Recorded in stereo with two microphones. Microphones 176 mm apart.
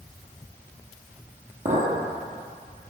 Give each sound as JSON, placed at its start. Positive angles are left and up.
{"t": 1.6, "sound": "a clink", "side_deg": -50, "distance_m": 2.5}